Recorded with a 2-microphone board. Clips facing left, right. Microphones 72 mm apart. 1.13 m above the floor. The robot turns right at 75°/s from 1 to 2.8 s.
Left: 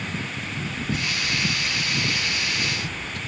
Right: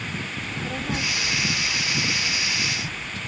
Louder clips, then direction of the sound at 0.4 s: Right 1 dB; 70° right.